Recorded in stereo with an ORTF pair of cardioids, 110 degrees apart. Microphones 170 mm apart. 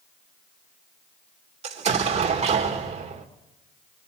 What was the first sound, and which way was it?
An explosion, 40° right.